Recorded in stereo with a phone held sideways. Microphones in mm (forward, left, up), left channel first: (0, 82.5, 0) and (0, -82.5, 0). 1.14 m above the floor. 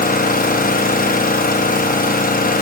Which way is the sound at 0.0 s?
55° left (ahead or behind).